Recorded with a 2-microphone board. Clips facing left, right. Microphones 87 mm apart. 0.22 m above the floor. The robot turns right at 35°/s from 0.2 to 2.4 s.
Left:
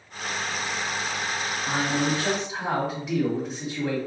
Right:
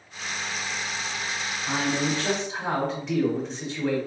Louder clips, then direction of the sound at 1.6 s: Left 1 dB; 20° left (ahead or behind).